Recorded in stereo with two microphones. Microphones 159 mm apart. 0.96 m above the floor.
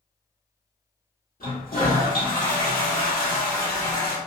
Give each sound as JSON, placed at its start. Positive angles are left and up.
{"t": 1.4, "sound": "a toilet flushing", "side_deg": 65, "distance_m": 1.1}